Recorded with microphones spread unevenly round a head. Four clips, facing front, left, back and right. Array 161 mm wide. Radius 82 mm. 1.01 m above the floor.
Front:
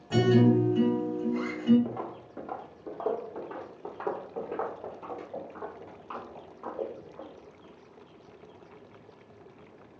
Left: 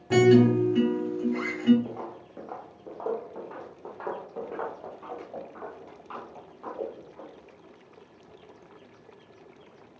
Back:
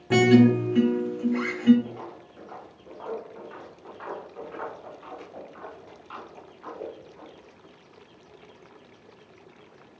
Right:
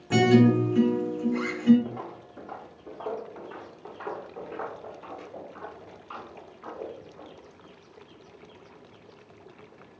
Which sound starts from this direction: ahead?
Footsteps, at 1.9 s.